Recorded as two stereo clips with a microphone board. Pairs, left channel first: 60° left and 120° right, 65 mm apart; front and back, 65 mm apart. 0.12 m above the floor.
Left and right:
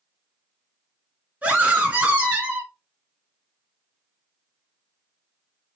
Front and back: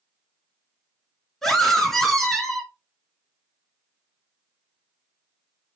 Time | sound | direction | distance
1.4 | a scream | 80° right | 1.4 m